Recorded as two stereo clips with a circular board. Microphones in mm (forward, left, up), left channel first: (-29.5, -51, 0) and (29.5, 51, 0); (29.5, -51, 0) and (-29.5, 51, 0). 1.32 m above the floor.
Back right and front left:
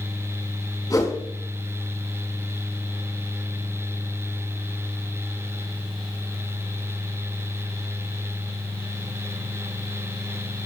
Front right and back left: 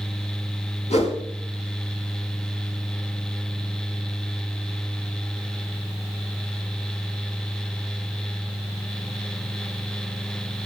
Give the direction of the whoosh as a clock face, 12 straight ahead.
2 o'clock.